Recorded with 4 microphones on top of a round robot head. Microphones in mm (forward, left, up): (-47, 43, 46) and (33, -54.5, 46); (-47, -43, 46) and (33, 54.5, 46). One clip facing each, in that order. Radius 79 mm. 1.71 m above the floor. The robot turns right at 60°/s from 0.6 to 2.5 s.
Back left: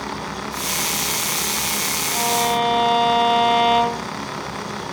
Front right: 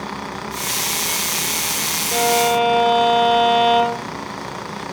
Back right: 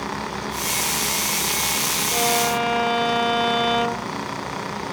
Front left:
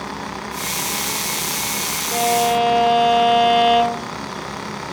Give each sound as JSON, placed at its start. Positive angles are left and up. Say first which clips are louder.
{"t": 2.1, "sound": "a violin", "louder": "front right 4 dB, front left 5 dB", "azimuth_deg": 0, "distance_m": 7.5}